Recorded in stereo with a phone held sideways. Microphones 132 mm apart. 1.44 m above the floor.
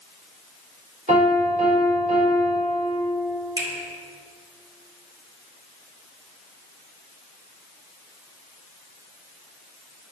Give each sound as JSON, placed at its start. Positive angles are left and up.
{"t": 1.1, "sound": "a piano", "side_deg": -70, "distance_m": 3.5}
{"t": 3.6, "sound": "a finger snap", "side_deg": -35, "distance_m": 2.0}